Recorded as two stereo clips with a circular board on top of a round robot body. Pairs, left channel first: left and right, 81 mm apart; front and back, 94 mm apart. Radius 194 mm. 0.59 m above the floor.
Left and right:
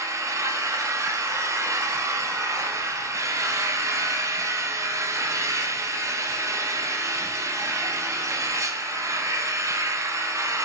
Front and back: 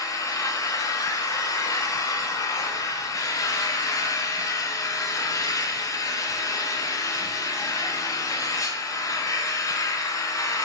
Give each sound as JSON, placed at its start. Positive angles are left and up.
{"t": 0.0, "sound": "an engine running", "azimuth_deg": -45, "distance_m": 0.8}